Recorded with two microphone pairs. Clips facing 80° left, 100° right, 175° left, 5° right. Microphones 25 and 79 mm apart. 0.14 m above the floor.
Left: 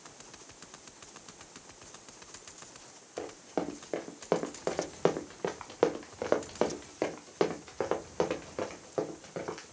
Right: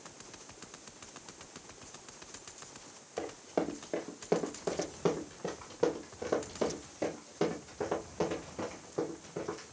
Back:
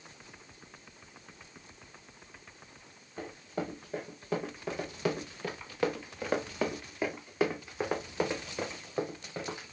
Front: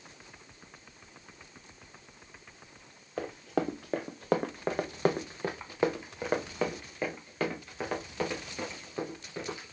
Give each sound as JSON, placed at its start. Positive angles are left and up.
{"t": 3.2, "sound": "running footsteps", "azimuth_deg": -5, "distance_m": 1.5}